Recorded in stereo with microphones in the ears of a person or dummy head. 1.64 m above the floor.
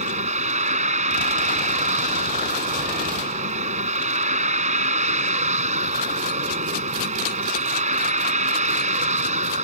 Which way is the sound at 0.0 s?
35° right (ahead or behind).